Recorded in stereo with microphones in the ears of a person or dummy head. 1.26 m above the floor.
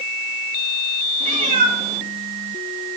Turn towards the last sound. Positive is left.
turn(degrees=-45)  # may be behind; listen again after turning